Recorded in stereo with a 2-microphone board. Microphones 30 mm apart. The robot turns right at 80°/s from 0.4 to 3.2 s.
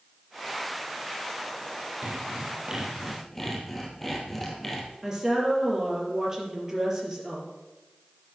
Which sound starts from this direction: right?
Sawing, at 2.0 s.